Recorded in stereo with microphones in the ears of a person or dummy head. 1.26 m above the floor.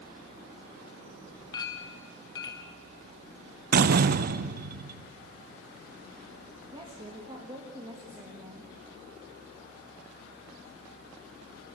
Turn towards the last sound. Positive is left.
turn(degrees=-20)  # may be behind; listen again after turning